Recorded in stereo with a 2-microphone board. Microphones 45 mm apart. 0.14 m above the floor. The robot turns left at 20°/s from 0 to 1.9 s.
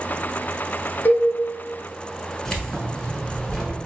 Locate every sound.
1.1 s a cowbell: 55° left (ahead or behind), 0.9 m
2.5 s keys jangling: 15° left (ahead or behind), 1.0 m